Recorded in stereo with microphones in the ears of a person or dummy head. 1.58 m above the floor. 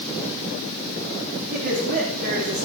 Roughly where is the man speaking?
Right.